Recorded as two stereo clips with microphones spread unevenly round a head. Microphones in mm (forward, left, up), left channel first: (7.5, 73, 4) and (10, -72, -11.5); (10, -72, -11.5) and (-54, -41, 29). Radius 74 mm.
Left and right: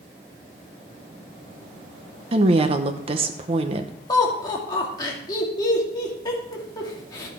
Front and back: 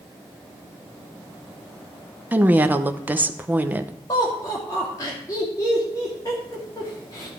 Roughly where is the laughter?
Ahead left.